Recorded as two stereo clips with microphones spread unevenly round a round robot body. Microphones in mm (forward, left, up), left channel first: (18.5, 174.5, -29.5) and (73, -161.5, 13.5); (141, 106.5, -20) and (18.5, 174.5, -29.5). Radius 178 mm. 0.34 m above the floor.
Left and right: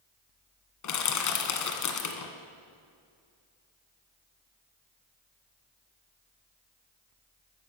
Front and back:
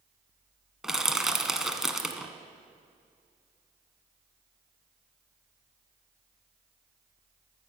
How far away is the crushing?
About 1.4 m.